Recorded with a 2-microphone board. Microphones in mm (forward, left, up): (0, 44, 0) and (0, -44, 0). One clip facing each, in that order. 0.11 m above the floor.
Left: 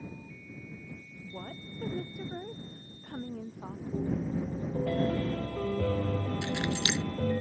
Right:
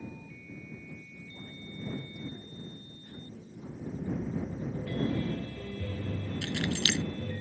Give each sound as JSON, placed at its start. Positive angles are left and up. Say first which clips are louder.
{"t": 1.2, "sound": "a woman speaking", "louder": "left 6 dB", "side_deg": 70}
{"t": 3.9, "sound": "a piano", "louder": "left 3 dB", "side_deg": 65}
{"t": 6.4, "sound": "keys jangling", "louder": "left 1 dB", "side_deg": 15}